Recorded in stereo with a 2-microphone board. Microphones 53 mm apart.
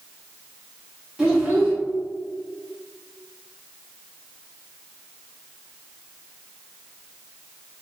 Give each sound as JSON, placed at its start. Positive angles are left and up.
{"t": 1.2, "sound": "a child speaking", "side_deg": -15, "distance_m": 1.6}